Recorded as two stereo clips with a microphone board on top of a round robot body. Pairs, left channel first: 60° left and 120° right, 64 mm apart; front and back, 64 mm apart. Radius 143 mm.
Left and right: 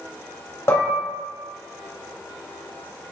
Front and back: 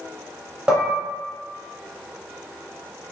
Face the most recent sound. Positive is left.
turn(degrees=105)